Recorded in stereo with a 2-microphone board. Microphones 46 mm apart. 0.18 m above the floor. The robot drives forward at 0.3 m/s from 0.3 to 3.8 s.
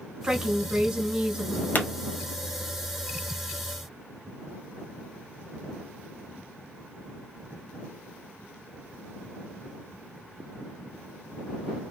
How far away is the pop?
About 0.7 m.